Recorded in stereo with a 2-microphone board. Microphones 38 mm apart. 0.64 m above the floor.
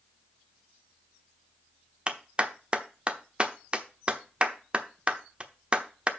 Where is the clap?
30° right (ahead or behind), 0.9 m.